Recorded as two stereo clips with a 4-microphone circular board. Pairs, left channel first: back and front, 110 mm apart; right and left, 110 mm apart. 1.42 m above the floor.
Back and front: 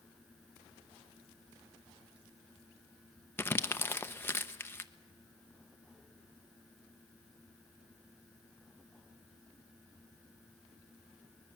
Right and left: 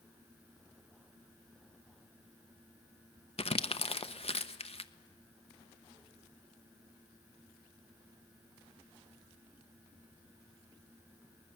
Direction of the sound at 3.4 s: 110° right.